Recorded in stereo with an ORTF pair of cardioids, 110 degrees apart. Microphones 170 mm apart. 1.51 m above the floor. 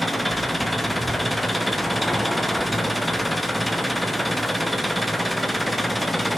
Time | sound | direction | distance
0.0 | an engine running | straight ahead | 0.9 m